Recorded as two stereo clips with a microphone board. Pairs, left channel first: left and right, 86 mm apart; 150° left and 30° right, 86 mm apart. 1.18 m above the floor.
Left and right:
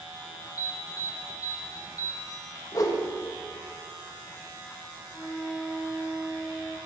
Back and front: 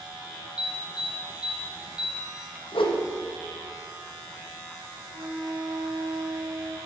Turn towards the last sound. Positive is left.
turn(degrees=0)